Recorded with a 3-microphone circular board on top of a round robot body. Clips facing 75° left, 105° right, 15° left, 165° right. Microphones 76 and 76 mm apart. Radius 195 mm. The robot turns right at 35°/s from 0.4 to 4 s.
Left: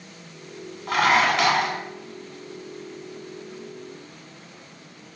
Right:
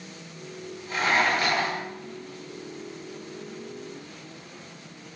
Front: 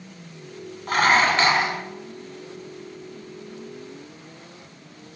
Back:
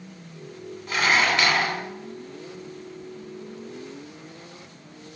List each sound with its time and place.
0.9 s dishes clattering: 55° left, 4.5 m; by 1.8 s 85° left, 4.5 m